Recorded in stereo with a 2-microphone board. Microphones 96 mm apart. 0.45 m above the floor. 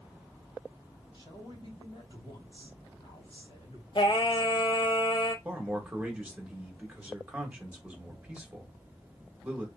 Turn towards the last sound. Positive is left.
turn(degrees=-15)  # may be behind; listen again after turning